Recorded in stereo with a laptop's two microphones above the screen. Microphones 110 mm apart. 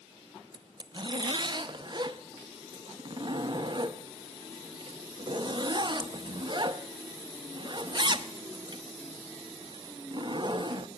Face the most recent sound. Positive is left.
turn(degrees=-40)  # may be behind; listen again after turning